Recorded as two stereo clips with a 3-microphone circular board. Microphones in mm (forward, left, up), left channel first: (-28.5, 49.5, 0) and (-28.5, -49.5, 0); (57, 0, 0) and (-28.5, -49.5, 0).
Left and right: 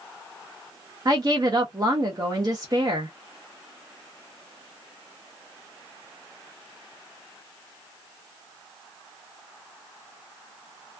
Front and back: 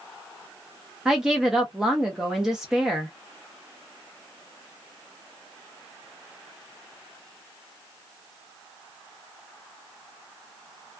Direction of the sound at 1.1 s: 70° right.